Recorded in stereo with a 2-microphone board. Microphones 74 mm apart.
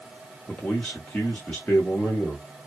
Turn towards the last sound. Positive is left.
turn(degrees=15)  # may be behind; listen again after turning